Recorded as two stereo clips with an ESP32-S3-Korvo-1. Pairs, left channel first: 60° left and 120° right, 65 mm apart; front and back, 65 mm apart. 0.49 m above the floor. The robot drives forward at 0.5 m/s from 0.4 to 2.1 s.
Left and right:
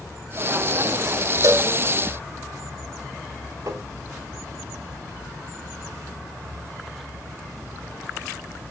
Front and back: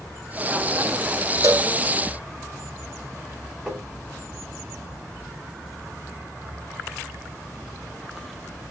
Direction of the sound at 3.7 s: 110° right.